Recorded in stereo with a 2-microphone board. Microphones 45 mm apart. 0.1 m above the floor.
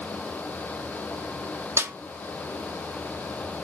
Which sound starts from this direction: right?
A snare drum, at 1.8 s.